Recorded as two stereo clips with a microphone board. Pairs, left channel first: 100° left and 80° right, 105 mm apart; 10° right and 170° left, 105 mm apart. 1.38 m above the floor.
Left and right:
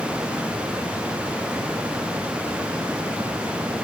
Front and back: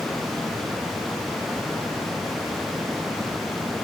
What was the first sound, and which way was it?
Only background noise.